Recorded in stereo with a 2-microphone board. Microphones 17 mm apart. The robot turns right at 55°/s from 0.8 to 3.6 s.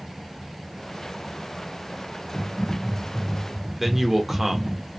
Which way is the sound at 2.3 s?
20° left.